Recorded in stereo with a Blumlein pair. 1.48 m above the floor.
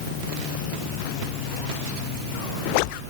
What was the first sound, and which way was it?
Only background noise.